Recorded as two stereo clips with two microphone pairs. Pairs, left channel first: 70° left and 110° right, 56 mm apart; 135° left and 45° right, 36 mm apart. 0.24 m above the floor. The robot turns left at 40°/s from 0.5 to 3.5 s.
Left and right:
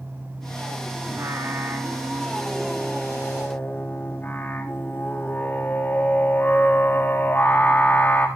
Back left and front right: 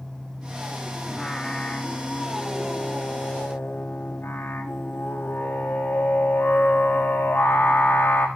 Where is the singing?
130° right, 3 m; by 8.3 s 135° left, 3 m.